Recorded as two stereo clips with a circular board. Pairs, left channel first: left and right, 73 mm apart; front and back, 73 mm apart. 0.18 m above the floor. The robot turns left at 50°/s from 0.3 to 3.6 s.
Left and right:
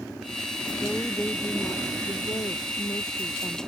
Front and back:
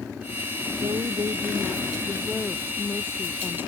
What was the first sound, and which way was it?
A woman speaking, straight behind.